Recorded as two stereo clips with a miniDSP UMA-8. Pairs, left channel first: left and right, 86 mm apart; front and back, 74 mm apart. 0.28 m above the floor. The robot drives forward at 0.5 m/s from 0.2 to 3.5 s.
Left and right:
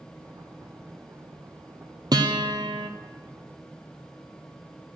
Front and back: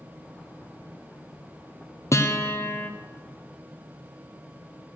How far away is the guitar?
About 1.2 m.